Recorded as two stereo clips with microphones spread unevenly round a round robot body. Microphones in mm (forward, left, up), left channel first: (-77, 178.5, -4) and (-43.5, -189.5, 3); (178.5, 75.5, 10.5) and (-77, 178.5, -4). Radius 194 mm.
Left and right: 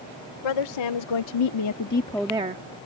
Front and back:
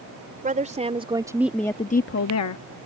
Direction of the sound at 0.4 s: 95° left.